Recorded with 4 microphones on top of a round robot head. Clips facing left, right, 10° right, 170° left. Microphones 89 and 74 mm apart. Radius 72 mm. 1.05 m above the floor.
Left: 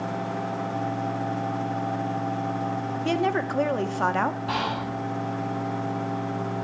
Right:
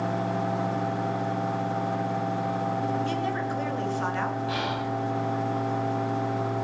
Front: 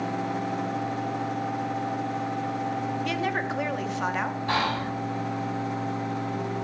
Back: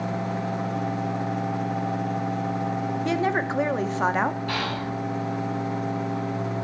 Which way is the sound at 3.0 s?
110° left.